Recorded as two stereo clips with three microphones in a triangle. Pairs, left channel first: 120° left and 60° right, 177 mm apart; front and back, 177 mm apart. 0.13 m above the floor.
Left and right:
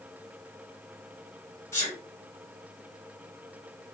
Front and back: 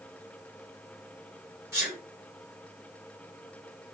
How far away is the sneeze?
About 1.6 m.